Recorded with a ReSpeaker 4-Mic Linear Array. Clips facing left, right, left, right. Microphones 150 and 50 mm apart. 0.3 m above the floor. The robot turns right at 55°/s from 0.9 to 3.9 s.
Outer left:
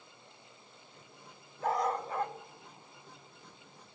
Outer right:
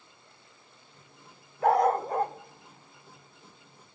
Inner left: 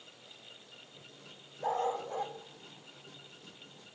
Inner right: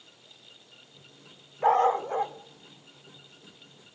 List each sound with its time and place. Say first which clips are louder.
1.6 s a dog barking: outer right 9 dB, inner right 11 dB; 65° right (ahead or behind), 0.8 m; by 3.9 s 50° left (ahead or behind), 0.8 m